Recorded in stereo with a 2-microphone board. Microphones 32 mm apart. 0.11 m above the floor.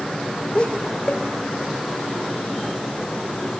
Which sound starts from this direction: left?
Laughter, at 0.6 s.